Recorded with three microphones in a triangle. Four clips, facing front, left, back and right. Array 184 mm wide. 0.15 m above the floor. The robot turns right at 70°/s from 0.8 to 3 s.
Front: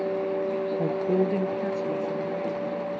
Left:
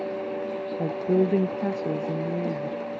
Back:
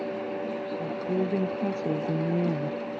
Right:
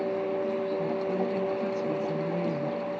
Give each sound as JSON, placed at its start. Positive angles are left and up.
{"t": 0.8, "sound": "a woman speaking", "azimuth_deg": 50}